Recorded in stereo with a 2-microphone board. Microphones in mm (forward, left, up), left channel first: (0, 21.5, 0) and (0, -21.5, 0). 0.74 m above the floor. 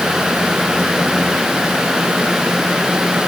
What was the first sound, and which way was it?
Only background noise.